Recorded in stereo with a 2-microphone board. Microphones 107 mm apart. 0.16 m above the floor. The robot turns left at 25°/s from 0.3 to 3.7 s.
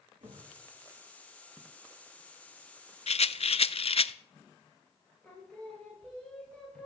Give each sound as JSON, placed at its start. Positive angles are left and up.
{"t": 0.2, "sound": "a thud", "side_deg": -85, "distance_m": 8.0}
{"t": 3.1, "sound": "a rattle", "side_deg": 65, "distance_m": 0.6}
{"t": 5.2, "sound": "singing", "side_deg": 10, "distance_m": 3.5}